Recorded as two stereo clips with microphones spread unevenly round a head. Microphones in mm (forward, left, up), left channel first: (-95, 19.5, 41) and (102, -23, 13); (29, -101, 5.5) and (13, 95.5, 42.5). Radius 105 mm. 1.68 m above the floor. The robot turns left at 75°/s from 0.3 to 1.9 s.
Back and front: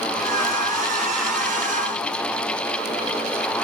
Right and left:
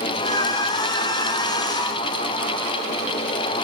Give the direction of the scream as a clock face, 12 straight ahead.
I don't hear a scream.